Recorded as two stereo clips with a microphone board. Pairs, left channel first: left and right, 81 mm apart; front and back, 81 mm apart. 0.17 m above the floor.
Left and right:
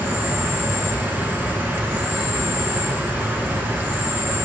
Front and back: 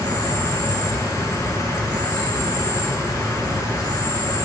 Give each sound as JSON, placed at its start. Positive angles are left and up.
{"t": 0.0, "sound": "an insect", "azimuth_deg": -30, "distance_m": 1.3}